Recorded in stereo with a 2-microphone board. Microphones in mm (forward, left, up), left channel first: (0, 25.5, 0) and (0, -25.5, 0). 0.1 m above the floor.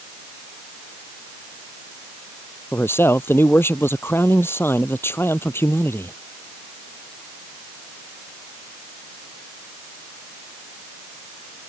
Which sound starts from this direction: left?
A man speaking, at 2.7 s.